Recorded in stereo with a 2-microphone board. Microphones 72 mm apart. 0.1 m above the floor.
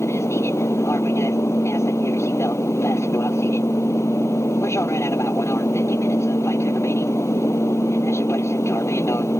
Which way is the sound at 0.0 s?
40° left (ahead or behind).